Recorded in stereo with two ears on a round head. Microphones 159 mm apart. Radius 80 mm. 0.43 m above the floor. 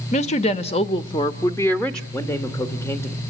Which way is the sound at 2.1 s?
15° left (ahead or behind).